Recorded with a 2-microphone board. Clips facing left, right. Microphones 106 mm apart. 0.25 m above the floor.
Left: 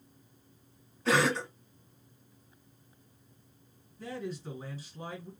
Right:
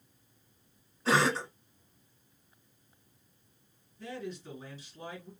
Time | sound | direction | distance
1.1 | a cough | 5° right (ahead or behind) | 1.8 m
4.0 | a man speaking | 35° left (ahead or behind) | 2 m